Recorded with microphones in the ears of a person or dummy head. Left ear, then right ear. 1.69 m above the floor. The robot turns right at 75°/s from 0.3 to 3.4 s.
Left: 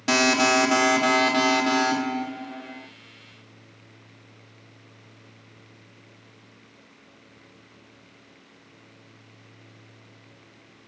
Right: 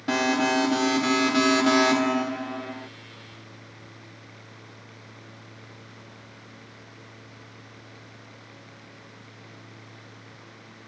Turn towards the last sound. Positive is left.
turn(degrees=-45)